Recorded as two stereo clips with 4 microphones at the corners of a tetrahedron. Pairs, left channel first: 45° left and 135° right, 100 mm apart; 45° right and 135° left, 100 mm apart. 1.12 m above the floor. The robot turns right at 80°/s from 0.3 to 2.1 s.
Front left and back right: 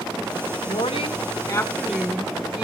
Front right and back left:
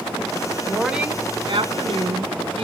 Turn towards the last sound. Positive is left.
turn(degrees=145)